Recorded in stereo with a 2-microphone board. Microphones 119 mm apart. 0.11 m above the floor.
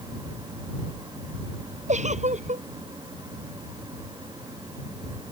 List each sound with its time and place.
1.9 s a giggle: 80° right